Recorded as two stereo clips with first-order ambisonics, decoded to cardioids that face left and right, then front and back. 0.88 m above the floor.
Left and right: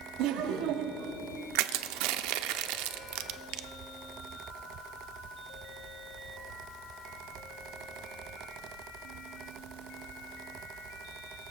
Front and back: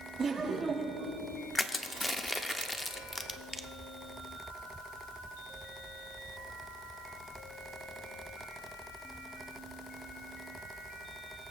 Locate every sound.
0.2 s laughter: 110° right, 1.4 m
1.6 s crushing: 85° right, 0.7 m